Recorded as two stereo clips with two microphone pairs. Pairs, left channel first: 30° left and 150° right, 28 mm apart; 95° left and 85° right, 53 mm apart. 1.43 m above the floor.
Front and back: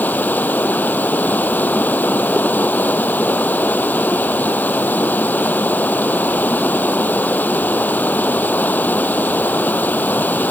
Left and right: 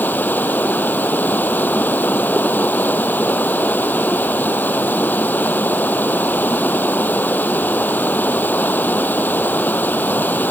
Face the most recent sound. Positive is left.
turn(degrees=40)